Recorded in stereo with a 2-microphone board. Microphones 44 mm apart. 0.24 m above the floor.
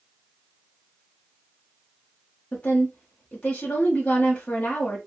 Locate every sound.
2.5 s a woman speaking: 25° left (ahead or behind), 1.0 m